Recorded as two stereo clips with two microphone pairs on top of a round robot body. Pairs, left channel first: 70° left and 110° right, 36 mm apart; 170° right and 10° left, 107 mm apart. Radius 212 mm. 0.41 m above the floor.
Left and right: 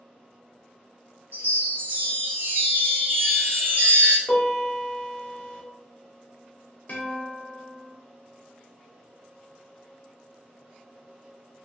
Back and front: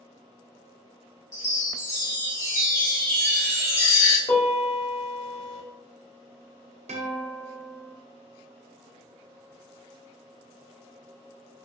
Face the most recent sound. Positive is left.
turn(degrees=20)